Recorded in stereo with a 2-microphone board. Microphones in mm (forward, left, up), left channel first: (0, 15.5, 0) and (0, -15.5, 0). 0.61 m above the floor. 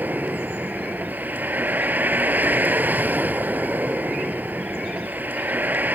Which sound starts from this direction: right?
A vehicle, at 0.0 s.